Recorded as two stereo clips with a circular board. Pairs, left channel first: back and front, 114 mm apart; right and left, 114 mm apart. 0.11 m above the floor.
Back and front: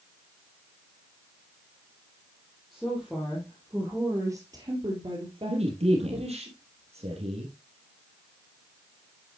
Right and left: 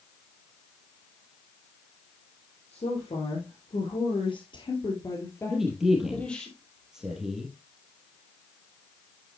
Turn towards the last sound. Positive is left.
turn(degrees=5)